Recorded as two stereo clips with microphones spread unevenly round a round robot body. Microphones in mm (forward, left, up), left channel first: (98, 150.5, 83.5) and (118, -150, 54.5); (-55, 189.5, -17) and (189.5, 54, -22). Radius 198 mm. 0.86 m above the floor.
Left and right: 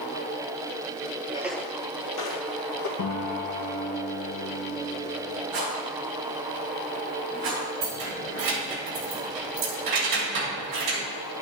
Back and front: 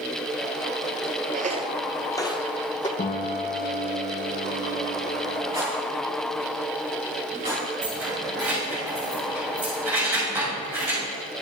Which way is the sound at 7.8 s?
115° right.